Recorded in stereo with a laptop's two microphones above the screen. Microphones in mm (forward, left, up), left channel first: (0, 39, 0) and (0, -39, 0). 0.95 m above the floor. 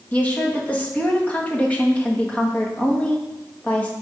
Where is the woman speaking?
20° left (ahead or behind), 1.2 m.